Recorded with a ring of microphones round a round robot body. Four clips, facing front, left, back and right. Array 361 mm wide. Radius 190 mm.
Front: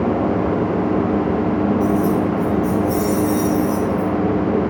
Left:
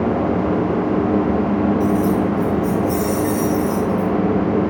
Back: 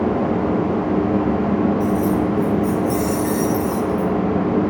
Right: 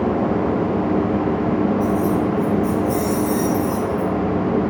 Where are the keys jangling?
135° left, 5 m; by 4.1 s 145° left, 3.5 m.